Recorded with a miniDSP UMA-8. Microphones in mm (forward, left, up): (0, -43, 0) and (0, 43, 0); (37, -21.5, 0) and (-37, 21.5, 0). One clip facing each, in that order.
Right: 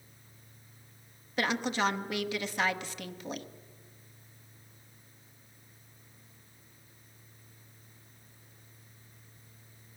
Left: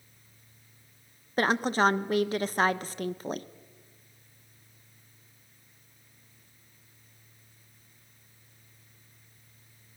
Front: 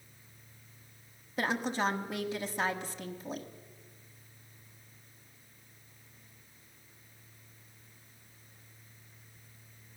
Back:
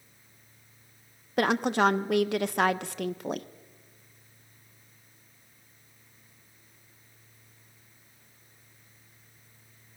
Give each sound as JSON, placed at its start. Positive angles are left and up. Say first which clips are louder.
{"t": 1.4, "sound": "a woman speaking", "louder": "left 5 dB, back 8 dB", "azimuth_deg": 140, "distance_m": 0.8}